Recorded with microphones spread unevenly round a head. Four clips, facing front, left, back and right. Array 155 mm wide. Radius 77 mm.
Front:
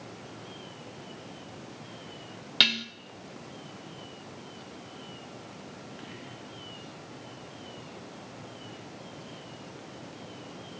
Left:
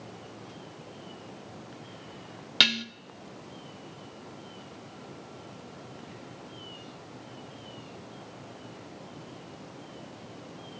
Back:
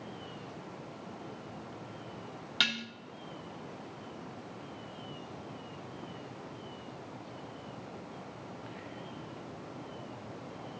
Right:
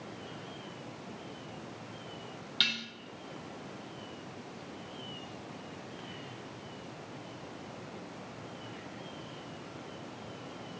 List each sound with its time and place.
2.6 s dishes clattering: 60° left, 0.6 m